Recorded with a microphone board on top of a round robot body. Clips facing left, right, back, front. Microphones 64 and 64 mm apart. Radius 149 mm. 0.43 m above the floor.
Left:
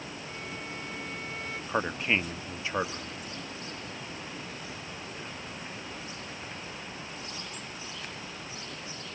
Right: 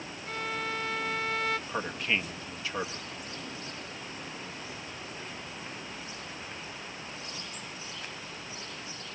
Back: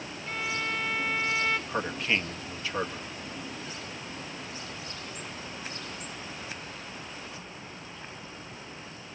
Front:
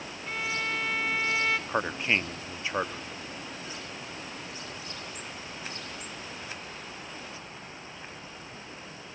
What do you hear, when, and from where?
0.3 s a violin: 80° right, 0.9 m
1.7 s a man speaking: 50° left, 1.1 m